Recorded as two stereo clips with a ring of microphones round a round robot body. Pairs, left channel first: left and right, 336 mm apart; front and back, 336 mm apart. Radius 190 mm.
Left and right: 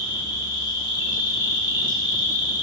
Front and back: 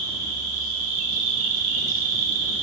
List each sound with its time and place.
0.0 s an insect: 170° left, 1.1 m